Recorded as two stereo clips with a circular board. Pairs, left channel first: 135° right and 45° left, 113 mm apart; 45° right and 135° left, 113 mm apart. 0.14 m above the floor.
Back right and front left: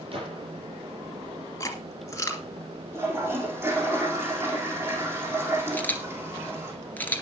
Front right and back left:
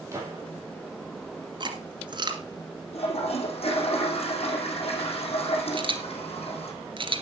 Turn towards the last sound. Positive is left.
turn(degrees=155)